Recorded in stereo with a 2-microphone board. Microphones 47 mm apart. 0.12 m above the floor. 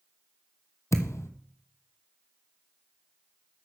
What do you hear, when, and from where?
0.9 s a thud: 75° left (ahead or behind), 0.8 m